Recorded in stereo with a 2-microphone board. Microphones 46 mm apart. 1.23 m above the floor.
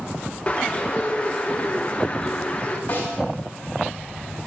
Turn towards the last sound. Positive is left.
turn(degrees=40)  # may be behind; listen again after turning